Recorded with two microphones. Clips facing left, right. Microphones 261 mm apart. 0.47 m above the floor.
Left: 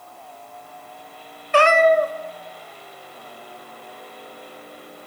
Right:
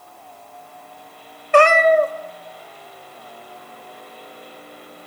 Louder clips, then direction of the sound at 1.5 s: Right 2 dB; 55° right (ahead or behind).